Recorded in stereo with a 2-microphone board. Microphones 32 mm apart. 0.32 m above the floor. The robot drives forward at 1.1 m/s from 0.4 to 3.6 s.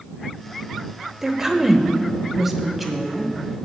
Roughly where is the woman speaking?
Centre.